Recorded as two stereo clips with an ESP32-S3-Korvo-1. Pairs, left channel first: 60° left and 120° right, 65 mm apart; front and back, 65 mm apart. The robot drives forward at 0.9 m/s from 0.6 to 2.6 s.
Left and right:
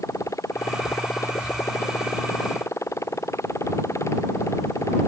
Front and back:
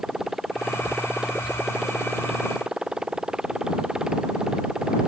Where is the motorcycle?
95° left; by 5.1 s 100° left.